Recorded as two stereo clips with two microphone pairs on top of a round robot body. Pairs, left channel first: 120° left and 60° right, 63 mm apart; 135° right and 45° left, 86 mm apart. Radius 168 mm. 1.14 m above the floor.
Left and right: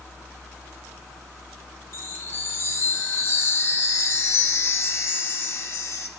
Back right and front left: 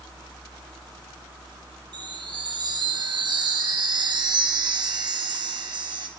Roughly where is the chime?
Left.